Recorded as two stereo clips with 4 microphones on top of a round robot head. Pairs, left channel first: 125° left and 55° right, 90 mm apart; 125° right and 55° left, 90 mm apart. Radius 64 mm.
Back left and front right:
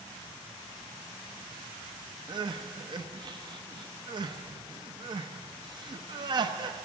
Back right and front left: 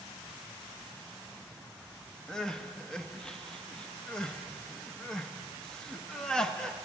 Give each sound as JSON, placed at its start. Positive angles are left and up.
{"t": 2.3, "sound": "crying", "azimuth_deg": -45, "distance_m": 0.9}